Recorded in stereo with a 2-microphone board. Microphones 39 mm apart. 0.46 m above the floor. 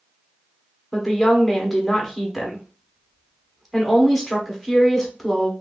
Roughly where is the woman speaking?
Centre.